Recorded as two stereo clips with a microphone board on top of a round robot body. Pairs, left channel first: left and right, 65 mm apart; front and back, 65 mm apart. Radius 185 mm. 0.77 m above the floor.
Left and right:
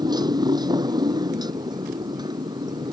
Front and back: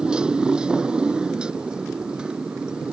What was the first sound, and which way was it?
A motorcycle, 105° right.